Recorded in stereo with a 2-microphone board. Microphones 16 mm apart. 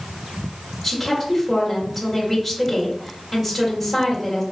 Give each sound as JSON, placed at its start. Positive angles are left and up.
{"t": 0.8, "sound": "a woman speaking", "side_deg": -5, "distance_m": 1.6}